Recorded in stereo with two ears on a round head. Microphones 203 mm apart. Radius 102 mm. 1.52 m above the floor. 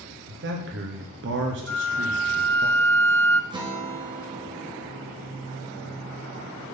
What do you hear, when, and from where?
0.3 s a man speaking: 55° right (ahead or behind), 0.9 m
1.7 s a flute: 10° left (ahead or behind), 0.5 m
3.5 s a guitar: 20° right (ahead or behind), 1.2 m